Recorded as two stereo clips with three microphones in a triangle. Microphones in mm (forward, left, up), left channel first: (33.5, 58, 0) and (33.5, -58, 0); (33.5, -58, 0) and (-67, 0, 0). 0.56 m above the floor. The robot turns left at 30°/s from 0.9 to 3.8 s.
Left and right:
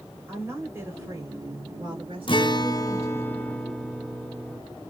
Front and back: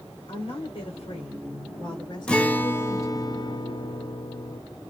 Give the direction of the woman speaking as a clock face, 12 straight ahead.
1 o'clock.